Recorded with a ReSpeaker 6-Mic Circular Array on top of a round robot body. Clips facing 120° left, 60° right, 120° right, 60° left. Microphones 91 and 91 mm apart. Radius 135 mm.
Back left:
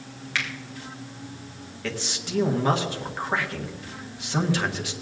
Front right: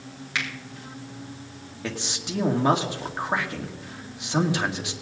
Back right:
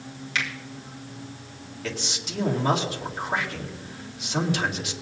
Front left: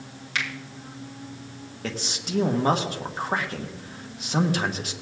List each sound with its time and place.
0.3 s a finger snap: 10° left, 4 m
1.8 s a man speaking: 10° left, 2 m